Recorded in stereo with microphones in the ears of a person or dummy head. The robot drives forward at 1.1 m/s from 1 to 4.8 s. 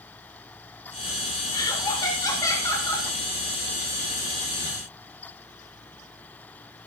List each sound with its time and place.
1.5 s laughter: 15° left (ahead or behind), 5 m